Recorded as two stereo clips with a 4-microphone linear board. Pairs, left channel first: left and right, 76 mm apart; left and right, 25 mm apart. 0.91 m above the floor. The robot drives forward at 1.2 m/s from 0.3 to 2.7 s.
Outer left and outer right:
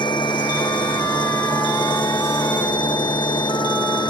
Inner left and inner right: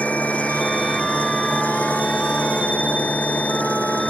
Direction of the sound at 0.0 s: 85° left.